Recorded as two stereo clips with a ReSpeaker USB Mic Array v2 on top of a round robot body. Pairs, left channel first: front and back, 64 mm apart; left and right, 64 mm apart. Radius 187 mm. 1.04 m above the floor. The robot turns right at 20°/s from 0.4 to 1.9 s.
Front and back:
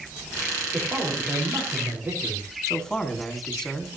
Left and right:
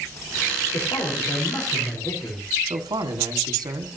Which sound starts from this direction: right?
A man speaking, at 2.7 s.